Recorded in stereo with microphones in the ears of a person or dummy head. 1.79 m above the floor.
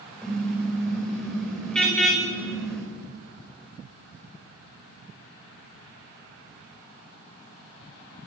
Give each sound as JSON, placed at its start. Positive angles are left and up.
{"t": 0.2, "sound": "a car horn", "side_deg": 5, "distance_m": 4.0}